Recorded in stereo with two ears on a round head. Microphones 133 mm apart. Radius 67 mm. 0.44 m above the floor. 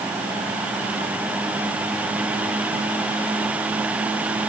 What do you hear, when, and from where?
Only background noise.